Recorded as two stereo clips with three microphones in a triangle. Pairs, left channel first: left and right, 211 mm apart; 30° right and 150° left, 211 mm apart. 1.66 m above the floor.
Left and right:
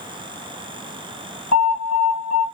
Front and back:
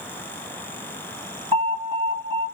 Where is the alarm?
15° left, 2 m.